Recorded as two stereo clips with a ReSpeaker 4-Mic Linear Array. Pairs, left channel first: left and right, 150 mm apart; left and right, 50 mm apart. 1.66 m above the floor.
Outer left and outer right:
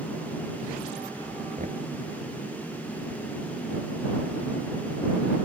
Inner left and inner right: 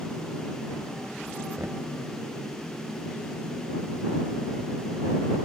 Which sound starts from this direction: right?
Knocking, at 1.6 s.